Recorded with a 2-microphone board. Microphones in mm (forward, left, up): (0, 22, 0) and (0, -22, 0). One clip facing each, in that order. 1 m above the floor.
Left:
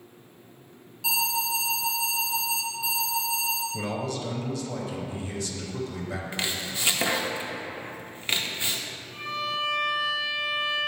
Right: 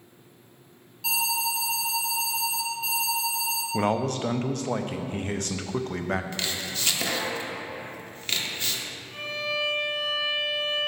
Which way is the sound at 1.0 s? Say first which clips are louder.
Even; centre (ahead or behind).